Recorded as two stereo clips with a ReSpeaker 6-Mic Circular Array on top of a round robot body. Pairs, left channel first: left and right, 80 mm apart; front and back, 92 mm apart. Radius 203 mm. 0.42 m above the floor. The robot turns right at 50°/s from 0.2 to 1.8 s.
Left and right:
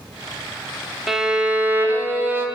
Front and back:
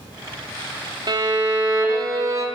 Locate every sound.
1.1 s a violin: straight behind, 1.3 m; by 2.5 s 140° right, 1.3 m